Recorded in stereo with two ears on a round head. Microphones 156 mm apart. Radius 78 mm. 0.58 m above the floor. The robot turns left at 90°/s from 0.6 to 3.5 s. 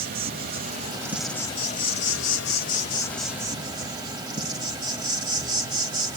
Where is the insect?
125° right, 1.0 m; by 6.2 s 25° right, 1.0 m.